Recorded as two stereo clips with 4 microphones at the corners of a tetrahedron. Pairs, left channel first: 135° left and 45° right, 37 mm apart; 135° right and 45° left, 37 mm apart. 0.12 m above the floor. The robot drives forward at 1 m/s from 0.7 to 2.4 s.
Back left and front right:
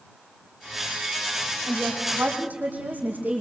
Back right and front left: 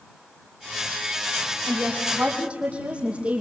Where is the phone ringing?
No phone ringing in this recording.